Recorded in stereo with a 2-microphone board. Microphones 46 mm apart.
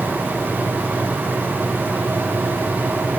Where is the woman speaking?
I don't hear a woman speaking.